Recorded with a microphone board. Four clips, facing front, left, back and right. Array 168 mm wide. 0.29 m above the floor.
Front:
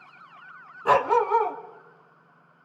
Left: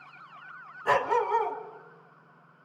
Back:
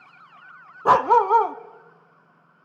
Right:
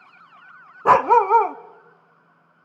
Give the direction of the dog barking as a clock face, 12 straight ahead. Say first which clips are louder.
Right 11 dB, back 4 dB; 4 o'clock.